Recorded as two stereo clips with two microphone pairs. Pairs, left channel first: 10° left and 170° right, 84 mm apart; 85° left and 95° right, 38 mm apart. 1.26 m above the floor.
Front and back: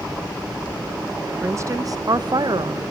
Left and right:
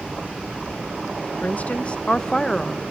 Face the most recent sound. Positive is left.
turn(degrees=170)